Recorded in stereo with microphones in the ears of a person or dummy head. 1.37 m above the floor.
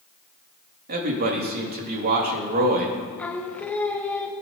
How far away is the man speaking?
About 2 m.